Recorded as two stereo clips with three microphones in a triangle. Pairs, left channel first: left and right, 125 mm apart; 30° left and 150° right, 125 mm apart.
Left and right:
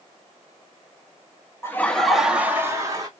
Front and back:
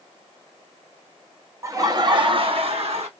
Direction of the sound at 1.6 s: 155° left.